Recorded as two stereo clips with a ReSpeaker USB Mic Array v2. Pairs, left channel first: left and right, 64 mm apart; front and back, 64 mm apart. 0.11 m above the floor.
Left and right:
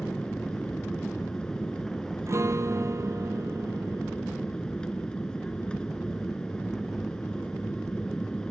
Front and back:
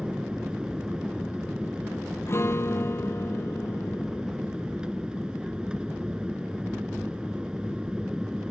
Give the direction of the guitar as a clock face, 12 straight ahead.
2 o'clock.